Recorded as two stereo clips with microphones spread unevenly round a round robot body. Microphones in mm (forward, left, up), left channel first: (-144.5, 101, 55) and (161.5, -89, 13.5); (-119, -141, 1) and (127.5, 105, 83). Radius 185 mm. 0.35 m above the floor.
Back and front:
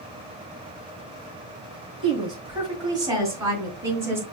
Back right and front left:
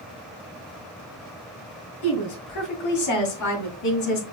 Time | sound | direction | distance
2.0 | a woman speaking | 110° right | 3 m